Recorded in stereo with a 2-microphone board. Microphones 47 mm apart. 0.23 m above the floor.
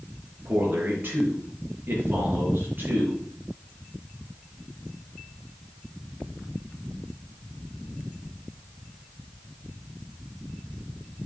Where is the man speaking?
50° right (ahead or behind), 4.5 m.